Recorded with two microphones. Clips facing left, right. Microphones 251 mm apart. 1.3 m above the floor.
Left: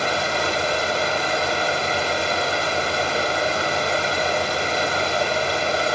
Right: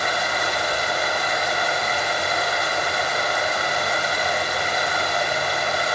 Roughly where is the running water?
Left.